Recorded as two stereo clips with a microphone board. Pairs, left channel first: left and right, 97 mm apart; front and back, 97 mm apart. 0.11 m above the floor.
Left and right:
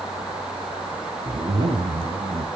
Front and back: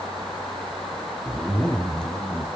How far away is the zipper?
About 1.7 m.